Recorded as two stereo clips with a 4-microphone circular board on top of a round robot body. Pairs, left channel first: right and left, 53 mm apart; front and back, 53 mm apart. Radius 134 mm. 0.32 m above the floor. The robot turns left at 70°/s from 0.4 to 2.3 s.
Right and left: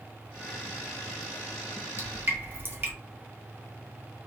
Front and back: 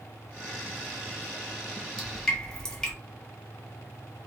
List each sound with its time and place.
2.0 s dripping: 95° left, 1.1 m; by 2.9 s 70° left, 1.1 m